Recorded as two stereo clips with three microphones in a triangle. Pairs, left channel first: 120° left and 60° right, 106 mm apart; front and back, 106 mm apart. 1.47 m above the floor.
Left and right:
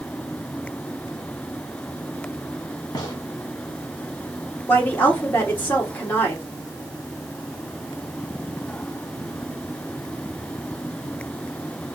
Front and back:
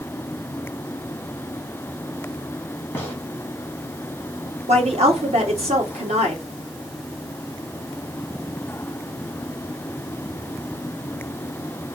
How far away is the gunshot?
About 2.5 m.